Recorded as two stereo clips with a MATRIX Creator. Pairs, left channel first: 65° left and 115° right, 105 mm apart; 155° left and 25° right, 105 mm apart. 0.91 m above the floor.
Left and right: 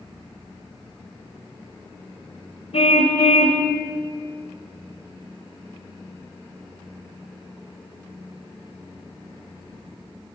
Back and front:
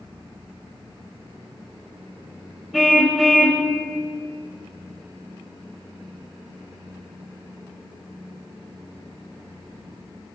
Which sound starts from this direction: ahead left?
A car horn, at 2.7 s.